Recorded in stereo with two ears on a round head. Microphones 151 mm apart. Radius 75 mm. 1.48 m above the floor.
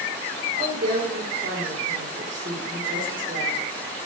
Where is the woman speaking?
50° right (ahead or behind), 4 m.